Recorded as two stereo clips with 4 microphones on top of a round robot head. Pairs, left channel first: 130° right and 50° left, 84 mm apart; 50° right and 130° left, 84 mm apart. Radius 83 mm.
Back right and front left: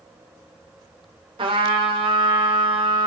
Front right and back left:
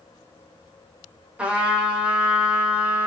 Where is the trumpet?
55° left, 1.0 m.